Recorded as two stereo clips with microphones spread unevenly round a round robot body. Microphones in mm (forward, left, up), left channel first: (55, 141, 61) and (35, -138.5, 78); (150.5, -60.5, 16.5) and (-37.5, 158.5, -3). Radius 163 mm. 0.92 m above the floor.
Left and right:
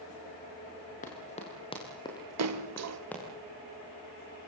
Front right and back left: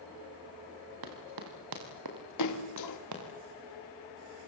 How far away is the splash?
About 2.0 m.